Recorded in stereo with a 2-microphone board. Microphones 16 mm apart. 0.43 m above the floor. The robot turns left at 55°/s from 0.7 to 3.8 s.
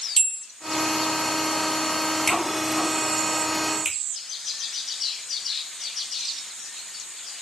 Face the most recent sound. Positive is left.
turn(degrees=-50)  # may be behind; listen again after turning